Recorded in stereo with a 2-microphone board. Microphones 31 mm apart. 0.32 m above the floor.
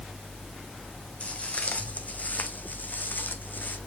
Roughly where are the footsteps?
Left.